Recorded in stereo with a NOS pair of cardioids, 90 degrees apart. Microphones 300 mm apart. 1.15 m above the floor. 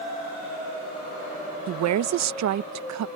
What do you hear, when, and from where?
1.7 s a woman speaking: 65° right